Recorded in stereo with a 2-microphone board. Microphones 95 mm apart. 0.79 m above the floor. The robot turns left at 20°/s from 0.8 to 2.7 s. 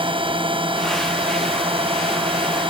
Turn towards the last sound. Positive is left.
turn(degrees=-110)